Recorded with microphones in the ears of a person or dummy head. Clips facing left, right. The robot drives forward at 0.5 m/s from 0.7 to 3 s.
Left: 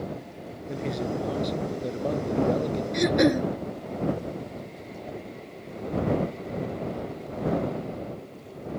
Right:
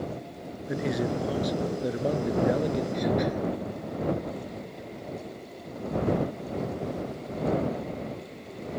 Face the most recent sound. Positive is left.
turn(degrees=75)  # may be behind; listen again after turning